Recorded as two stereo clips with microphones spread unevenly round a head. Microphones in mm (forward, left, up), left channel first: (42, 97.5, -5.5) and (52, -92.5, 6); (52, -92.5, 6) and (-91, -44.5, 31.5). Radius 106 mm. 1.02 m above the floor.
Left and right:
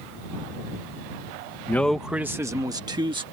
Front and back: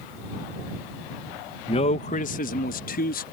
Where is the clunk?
No clunk in this recording.